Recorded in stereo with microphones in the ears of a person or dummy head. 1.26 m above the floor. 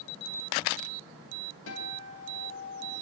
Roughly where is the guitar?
Left.